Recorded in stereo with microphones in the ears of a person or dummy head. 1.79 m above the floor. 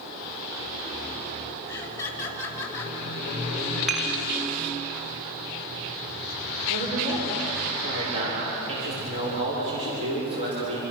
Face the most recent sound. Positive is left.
turn(degrees=-30)  # may be behind; listen again after turning